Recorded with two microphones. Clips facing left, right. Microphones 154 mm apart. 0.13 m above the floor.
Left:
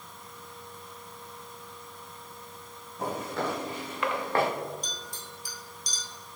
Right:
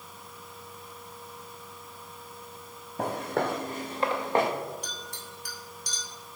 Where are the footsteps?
70° right (ahead or behind), 1.6 m; by 4.5 s 15° right (ahead or behind), 1.3 m.